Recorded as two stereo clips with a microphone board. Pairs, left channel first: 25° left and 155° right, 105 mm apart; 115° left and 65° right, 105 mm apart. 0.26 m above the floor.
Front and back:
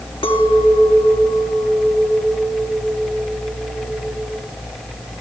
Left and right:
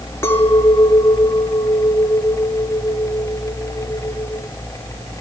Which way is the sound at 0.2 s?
45° left.